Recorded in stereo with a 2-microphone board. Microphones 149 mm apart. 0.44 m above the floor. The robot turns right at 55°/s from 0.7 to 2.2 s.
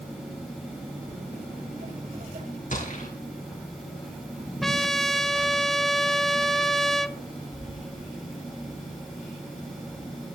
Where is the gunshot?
60° left (ahead or behind), 5 m.